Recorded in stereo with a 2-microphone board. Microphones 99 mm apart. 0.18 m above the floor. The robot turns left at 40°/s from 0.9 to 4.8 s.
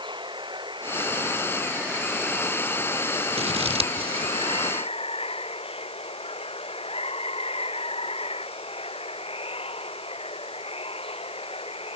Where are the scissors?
85° right; by 4.3 s 60° right (ahead or behind).